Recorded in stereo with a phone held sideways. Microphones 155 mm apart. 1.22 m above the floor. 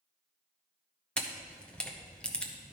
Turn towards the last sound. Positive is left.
turn(degrees=5)  # may be behind; listen again after turning